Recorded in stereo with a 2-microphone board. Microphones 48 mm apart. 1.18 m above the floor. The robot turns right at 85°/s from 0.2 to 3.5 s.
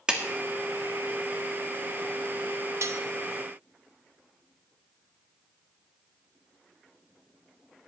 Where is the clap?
15° right (ahead or behind), 1.5 m.